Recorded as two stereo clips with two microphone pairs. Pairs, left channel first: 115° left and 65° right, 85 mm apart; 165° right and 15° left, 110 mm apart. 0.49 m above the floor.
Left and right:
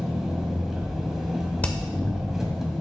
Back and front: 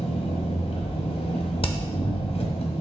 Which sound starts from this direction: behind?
Hammering, at 1.6 s.